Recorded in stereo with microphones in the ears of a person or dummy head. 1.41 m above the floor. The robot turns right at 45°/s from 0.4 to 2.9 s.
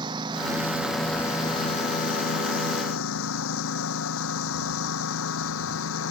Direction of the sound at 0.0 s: 25° right.